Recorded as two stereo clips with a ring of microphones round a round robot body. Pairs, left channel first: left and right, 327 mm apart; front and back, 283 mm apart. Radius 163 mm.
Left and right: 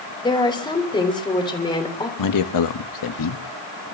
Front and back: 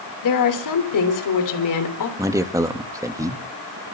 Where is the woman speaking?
15° left, 3.5 m.